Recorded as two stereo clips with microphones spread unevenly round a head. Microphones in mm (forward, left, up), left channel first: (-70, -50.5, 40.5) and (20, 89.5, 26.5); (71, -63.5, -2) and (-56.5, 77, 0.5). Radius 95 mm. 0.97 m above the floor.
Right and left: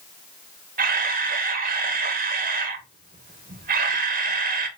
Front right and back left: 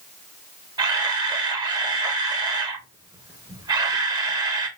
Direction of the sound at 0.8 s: 65° left.